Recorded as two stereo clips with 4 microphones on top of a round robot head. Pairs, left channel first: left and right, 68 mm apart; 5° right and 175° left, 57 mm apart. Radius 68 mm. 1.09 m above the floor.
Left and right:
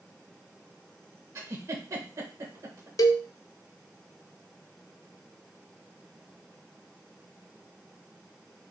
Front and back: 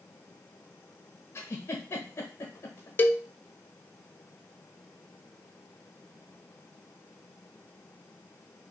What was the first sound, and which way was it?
A giggle, 50° right.